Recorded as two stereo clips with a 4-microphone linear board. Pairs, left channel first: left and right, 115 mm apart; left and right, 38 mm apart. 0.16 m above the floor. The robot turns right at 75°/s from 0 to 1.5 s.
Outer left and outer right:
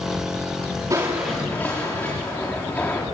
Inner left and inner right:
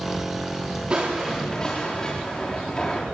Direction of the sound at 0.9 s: 30° right.